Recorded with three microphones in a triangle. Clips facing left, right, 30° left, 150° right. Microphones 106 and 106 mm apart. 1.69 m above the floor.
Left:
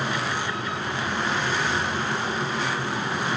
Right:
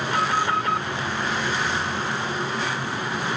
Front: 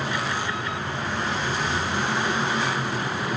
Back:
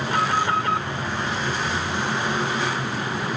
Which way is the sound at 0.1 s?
120° right.